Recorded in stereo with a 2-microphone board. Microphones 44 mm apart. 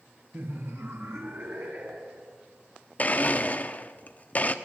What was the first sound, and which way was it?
Laughter, 50° right (ahead or behind).